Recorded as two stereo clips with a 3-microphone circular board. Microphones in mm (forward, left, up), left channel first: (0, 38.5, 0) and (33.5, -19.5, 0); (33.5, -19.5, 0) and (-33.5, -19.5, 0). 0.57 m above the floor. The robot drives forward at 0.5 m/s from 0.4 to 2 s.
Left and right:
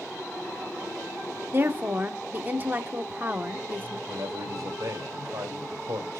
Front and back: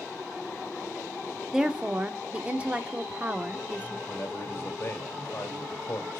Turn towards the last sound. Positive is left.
turn(degrees=-50)